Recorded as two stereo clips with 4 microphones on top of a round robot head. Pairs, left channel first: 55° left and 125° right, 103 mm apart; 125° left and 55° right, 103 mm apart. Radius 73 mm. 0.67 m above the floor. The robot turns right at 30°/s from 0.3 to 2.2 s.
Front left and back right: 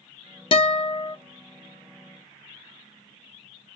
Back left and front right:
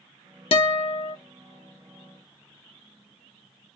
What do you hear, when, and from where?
0.5 s a guitar: 95° left, 0.6 m; by 1.2 s 115° left, 0.6 m